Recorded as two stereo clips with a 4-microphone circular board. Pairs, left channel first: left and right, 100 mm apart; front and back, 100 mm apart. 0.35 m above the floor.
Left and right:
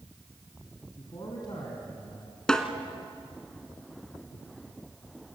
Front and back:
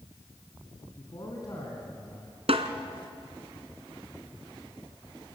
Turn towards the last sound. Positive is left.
turn(degrees=175)